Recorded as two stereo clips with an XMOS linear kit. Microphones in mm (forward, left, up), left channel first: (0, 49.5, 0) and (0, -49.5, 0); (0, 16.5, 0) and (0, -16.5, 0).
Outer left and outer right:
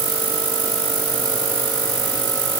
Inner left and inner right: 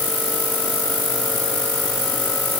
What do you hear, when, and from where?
Only background noise.